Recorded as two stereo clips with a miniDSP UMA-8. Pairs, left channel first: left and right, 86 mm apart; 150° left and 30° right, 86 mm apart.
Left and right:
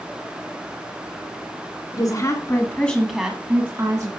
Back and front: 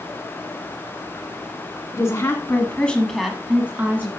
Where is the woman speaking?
105° left, 2.5 m; by 4.2 s 85° right, 2 m.